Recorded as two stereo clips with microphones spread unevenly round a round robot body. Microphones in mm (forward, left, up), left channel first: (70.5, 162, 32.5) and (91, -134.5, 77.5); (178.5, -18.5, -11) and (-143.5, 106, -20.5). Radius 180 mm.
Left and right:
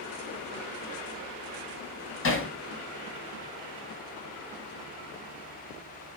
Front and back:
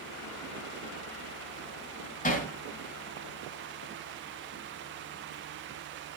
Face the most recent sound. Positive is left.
turn(degrees=45)